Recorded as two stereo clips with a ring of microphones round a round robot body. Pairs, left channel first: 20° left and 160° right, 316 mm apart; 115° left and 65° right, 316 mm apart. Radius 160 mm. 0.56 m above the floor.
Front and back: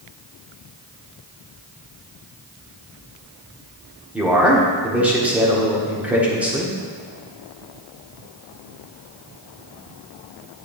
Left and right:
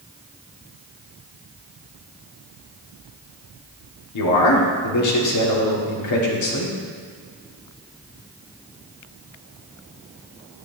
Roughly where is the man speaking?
Behind left.